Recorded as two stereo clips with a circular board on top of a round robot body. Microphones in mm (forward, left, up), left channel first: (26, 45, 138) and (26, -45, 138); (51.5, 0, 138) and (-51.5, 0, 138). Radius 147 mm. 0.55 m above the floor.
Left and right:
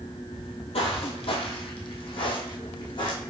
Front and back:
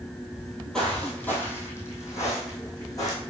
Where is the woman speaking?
I don't hear a woman speaking.